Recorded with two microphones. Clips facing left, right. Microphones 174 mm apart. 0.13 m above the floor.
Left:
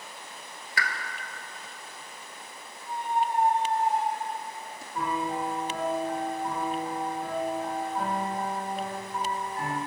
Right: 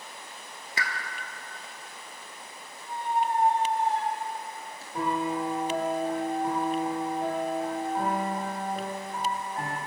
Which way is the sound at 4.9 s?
60° right (ahead or behind).